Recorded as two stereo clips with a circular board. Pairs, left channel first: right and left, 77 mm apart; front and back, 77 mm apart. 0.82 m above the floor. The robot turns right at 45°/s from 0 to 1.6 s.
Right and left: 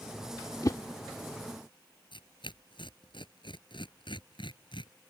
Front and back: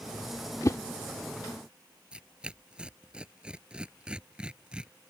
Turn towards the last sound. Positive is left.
turn(degrees=-100)